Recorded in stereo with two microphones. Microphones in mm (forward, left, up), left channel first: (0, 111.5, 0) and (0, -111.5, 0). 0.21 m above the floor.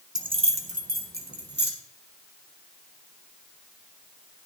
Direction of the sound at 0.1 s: 15° right (ahead or behind).